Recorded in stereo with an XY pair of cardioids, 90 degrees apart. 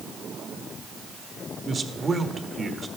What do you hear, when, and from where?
1.6 s a man speaking: 35° right, 1.5 m